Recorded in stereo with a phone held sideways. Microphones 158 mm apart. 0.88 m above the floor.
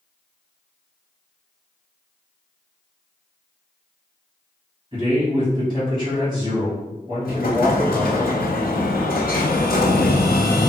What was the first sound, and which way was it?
A man speaking, 35° right (ahead or behind).